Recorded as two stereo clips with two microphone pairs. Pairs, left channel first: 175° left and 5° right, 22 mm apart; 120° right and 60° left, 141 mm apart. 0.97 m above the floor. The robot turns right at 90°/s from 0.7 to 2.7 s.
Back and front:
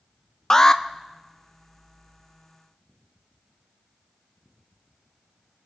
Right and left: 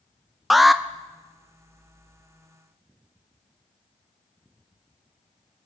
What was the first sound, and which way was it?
An alarm, 150° left.